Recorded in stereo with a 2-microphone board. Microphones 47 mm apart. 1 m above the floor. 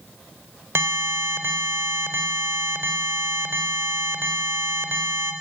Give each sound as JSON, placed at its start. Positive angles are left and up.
{"t": 0.8, "sound": "an alarm", "side_deg": -75, "distance_m": 3.5}